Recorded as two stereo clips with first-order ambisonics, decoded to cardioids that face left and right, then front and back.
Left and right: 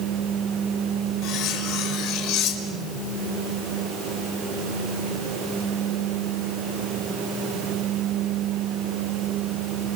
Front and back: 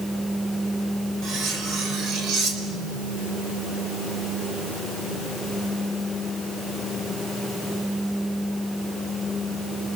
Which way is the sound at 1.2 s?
125° left.